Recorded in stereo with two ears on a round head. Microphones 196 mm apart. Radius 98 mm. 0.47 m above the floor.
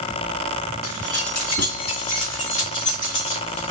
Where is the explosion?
No explosion in this recording.